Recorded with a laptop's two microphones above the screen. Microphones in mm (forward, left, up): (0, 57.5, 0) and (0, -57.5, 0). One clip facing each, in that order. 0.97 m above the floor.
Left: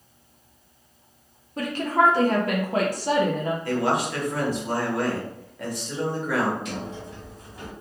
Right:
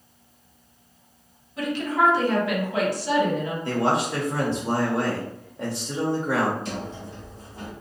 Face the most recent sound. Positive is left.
turn(degrees=-30)  # may be behind; listen again after turning